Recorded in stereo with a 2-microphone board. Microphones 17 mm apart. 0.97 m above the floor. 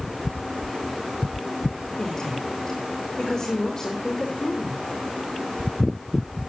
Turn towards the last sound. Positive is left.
turn(degrees=25)  # may be behind; listen again after turning